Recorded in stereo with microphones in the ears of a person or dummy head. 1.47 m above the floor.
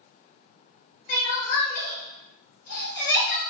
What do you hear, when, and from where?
1.1 s crying: 50° left (ahead or behind), 1.0 m